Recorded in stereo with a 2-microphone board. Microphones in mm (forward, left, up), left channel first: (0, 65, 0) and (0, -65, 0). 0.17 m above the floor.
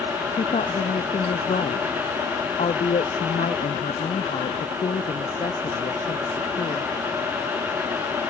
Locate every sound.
0.3 s a woman speaking: 65° left (ahead or behind)